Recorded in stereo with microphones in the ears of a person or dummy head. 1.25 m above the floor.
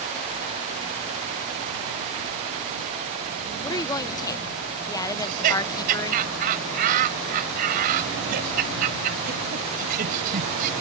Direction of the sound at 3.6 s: 20° left (ahead or behind).